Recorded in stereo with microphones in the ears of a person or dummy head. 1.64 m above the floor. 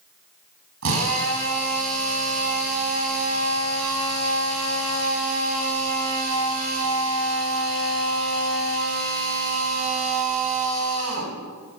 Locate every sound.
0.8 s a drill: 85° right, 7.5 m